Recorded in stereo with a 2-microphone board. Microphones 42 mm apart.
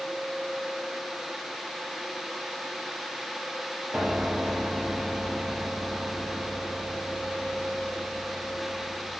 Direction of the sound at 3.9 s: 30° right (ahead or behind).